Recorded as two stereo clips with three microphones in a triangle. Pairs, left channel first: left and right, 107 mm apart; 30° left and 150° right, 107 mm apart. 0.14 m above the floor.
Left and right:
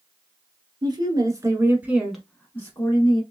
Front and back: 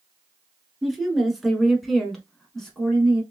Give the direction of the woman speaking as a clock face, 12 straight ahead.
2 o'clock.